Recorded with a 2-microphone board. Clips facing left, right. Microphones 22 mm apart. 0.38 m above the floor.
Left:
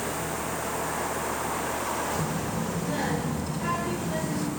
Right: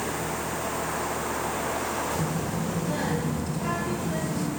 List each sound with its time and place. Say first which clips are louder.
2.1 s a child speaking: right 1 dB; 5° left (ahead or behind), 0.9 m